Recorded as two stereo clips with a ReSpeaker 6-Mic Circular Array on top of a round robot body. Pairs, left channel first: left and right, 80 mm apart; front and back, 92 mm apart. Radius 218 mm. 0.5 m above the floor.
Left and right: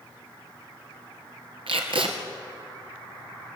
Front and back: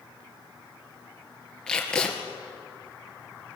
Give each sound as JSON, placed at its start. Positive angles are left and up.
{"t": 1.7, "sound": "tape being pulled", "azimuth_deg": -80, "distance_m": 2.5}